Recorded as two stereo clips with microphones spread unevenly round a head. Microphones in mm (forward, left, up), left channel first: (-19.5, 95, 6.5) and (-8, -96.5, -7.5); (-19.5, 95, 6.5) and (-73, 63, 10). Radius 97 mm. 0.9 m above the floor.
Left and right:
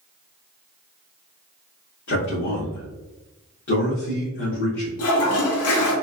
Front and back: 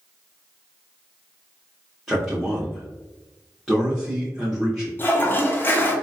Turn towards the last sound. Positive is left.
turn(degrees=90)